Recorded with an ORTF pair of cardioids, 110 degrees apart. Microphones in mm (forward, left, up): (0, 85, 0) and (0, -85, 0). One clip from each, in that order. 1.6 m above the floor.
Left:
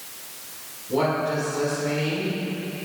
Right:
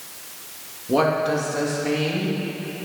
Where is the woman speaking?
70° right, 3 m.